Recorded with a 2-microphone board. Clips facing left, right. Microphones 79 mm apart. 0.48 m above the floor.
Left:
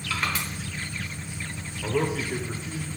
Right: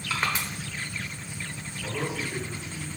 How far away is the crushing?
About 1.3 m.